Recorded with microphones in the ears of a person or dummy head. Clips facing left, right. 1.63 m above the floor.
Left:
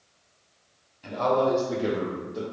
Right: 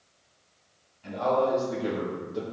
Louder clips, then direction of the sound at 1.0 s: Left 2 dB; 70° left (ahead or behind).